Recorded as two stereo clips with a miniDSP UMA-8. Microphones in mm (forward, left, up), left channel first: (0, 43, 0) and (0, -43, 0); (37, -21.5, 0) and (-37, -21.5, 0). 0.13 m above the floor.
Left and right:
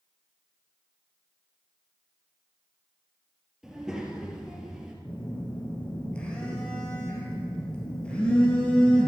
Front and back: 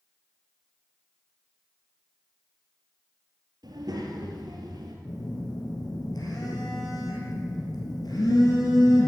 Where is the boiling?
No boiling in this recording.